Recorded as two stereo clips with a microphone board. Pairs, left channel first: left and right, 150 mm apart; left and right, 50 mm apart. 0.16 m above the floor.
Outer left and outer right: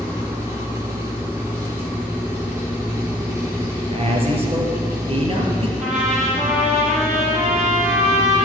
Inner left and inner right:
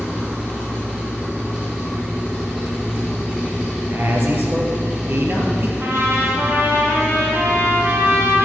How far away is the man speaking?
About 3 m.